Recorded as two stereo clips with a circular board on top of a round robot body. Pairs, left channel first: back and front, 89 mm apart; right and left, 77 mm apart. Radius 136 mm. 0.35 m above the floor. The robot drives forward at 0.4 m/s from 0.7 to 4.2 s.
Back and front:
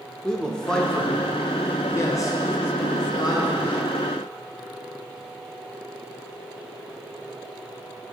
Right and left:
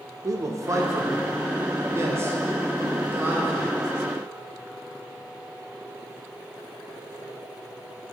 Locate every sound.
0.2 s a man speaking: 100° left, 1.0 m; by 3.8 s 155° left, 1.7 m